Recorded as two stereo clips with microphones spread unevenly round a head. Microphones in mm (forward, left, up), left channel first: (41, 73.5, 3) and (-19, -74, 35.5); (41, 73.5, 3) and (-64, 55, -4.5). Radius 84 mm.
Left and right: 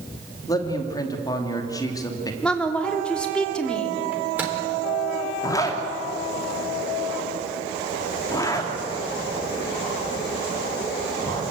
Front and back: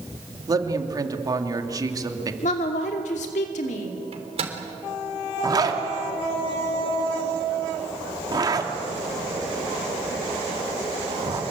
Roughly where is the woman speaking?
Ahead.